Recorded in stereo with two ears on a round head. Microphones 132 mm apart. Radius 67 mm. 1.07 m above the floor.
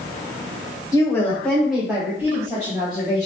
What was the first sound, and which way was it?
A woman speaking, 25° left (ahead or behind).